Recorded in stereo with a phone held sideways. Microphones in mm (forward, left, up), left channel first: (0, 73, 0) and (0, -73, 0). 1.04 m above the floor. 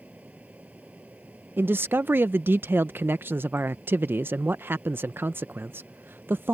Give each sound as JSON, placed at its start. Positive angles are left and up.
{"t": 0.0, "sound": "a fan", "side_deg": -10}
{"t": 1.6, "sound": "a man speaking", "side_deg": -15}